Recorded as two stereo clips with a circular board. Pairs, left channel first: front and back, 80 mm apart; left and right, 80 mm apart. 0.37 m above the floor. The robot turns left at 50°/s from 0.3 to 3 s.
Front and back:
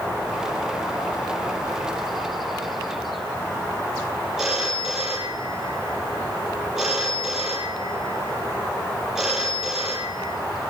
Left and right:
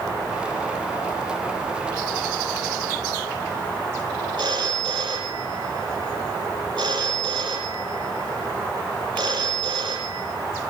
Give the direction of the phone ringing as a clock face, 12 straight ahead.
3 o'clock.